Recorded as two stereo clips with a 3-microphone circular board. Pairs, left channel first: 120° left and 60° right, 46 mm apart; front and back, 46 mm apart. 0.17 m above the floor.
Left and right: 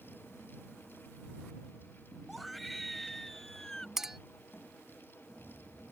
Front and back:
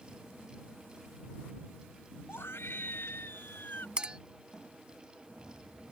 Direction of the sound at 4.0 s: 130° right.